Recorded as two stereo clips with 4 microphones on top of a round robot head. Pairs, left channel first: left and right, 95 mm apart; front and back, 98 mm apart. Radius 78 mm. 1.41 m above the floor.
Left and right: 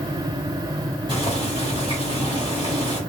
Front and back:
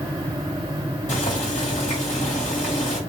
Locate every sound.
1.1 s boiling: 30° right, 1.5 m